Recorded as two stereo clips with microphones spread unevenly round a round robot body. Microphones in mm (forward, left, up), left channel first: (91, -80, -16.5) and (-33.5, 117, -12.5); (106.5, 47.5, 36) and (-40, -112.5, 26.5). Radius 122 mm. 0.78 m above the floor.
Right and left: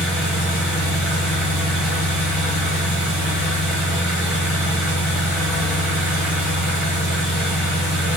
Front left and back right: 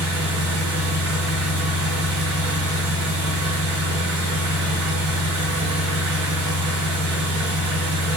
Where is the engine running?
145° right, 1.8 m.